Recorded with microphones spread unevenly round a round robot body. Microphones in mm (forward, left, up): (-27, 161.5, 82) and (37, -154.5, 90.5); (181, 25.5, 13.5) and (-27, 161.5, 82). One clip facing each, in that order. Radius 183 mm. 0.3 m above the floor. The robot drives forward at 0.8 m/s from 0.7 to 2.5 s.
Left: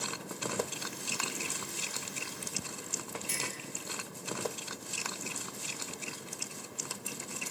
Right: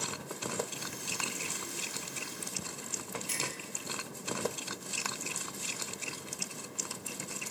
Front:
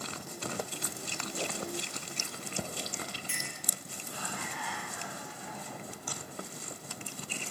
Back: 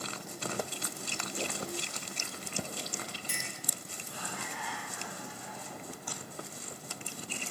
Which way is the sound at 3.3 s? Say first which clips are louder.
Right 1 dB, even; 100° left.